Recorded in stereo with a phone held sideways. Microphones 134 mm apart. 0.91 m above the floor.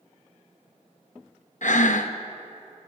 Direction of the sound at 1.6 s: 70° left (ahead or behind).